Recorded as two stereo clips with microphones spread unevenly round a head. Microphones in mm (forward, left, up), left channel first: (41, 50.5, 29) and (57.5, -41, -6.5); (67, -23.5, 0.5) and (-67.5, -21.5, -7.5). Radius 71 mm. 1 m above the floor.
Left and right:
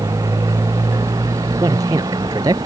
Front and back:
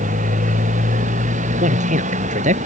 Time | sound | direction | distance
0.0 | a motorcycle | 150° right | ?
1.6 | a man speaking | 150° right | ?